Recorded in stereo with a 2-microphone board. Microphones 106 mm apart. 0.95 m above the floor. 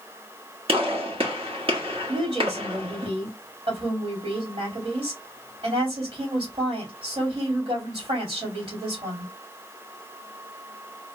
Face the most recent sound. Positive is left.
turn(degrees=-60)  # may be behind; listen again after turning